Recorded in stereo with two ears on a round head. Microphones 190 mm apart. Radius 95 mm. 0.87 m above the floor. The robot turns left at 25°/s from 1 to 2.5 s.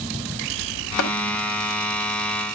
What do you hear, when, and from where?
1.0 s tapping: 80° left, 3.5 m